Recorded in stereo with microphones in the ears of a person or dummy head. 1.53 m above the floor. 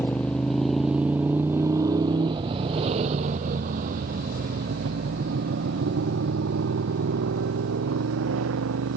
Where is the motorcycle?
5° left (ahead or behind); by 9.0 s 75° right (ahead or behind).